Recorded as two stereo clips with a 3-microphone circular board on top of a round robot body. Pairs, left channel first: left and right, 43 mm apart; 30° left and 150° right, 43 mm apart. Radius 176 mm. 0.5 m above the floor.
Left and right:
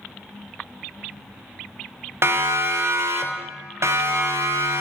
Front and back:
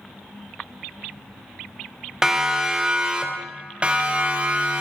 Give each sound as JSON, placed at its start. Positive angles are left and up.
{"t": 2.2, "sound": "a siren", "azimuth_deg": -70, "distance_m": 3.0}